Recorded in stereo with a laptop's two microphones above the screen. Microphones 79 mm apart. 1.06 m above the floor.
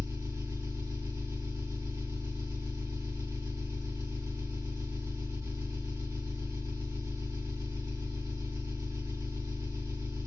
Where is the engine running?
40° right (ahead or behind), 1.5 m.